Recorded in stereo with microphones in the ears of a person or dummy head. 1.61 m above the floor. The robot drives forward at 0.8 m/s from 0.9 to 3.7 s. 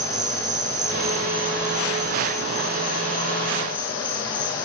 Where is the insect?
40° right (ahead or behind), 1.0 m; by 4.6 s 15° right (ahead or behind), 3 m.